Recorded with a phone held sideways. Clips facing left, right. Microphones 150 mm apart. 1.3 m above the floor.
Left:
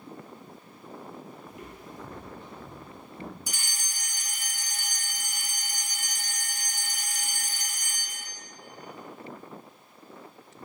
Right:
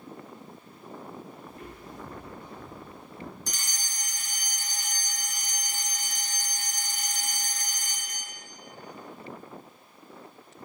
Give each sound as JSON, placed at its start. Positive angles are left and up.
{"t": 1.5, "sound": "footsteps", "side_deg": 15, "distance_m": 1.6}
{"t": 3.5, "sound": "a fire alarm", "side_deg": 5, "distance_m": 0.9}